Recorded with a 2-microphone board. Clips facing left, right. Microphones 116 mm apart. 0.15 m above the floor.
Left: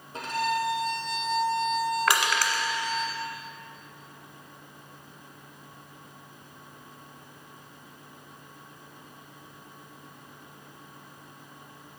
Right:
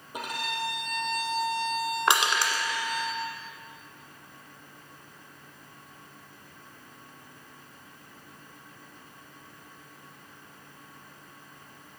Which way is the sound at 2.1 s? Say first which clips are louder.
Even; 20° right (ahead or behind).